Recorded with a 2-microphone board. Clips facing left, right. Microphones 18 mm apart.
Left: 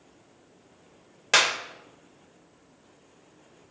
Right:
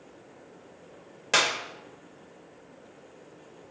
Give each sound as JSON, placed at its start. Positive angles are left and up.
{"t": 1.3, "sound": "a clap", "side_deg": 15, "distance_m": 1.0}